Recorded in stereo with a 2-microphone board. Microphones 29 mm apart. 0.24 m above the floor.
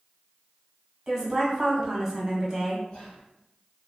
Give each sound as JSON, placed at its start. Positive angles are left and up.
{"t": 1.1, "sound": "a woman speaking", "side_deg": -20, "distance_m": 1.3}
{"t": 2.9, "sound": "whispering", "side_deg": 40, "distance_m": 1.5}